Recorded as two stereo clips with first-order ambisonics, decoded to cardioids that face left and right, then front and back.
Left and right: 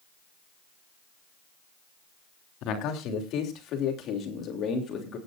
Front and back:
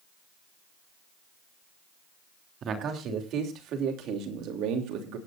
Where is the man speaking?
125° left, 3.5 m; by 5.2 s 155° left, 3 m.